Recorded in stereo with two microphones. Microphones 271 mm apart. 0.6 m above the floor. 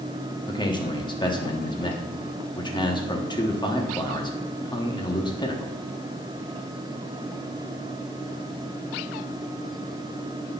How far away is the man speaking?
About 1.1 m.